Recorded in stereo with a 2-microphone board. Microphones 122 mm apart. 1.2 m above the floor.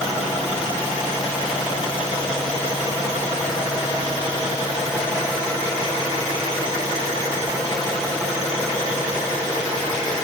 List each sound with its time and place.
Only background noise.